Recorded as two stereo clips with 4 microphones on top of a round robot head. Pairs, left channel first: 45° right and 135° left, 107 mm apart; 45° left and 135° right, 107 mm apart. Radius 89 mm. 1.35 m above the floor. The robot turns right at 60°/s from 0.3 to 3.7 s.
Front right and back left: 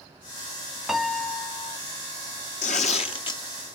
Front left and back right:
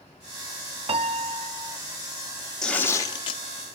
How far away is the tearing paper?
About 1.4 m.